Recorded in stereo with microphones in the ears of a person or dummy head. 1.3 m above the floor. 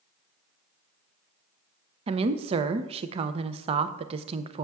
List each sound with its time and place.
2.1 s a woman speaking: 30° right (ahead or behind), 0.6 m